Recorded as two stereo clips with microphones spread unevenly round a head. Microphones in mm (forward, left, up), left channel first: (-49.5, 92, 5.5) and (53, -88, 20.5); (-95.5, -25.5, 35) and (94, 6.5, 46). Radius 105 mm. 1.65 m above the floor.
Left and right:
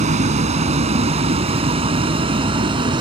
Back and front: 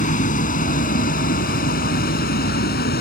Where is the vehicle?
120° right; by 3.0 s 130° right.